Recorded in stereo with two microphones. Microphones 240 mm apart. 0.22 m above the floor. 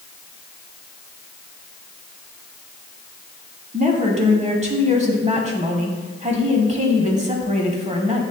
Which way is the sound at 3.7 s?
30° right (ahead or behind).